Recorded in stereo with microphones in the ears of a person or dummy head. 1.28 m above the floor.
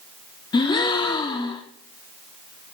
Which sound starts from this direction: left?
A gasp, at 0.5 s.